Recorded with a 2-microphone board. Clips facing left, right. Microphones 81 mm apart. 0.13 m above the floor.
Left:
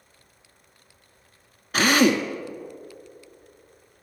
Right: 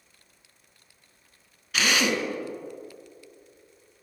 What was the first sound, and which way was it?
A drill, 40° left (ahead or behind).